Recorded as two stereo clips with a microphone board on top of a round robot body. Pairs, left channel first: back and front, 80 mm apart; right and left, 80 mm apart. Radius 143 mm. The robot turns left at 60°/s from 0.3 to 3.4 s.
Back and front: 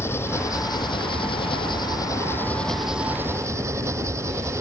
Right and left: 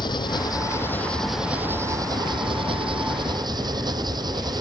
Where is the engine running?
120° right; by 4.6 s 55° left.